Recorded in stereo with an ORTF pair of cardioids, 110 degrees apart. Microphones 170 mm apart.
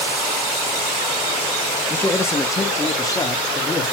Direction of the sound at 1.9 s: 10° left.